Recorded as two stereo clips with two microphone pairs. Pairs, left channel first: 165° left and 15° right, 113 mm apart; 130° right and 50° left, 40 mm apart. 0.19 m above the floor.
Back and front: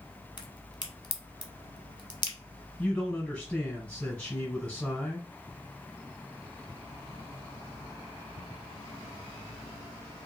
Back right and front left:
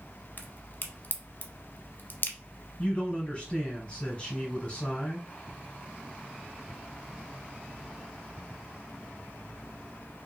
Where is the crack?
155° right, 0.8 m.